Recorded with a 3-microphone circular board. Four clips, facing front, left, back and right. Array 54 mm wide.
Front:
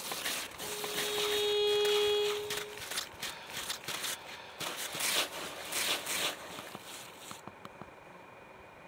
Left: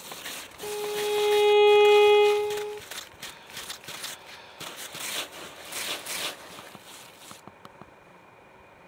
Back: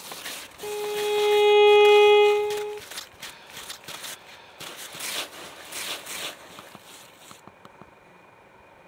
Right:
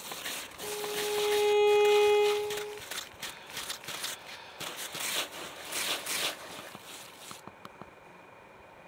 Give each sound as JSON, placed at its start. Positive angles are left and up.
{"t": 0.6, "sound": "a violin", "azimuth_deg": 155}